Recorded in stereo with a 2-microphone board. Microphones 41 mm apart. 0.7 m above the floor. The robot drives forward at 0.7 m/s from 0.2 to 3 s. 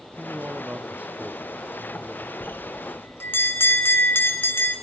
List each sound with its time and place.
0.2 s a man speaking: 50° right (ahead or behind), 0.6 m; by 2.3 s 15° right (ahead or behind), 1.7 m
2.4 s a bell: 55° left (ahead or behind), 3 m; by 4.7 s 65° left (ahead or behind), 2.5 m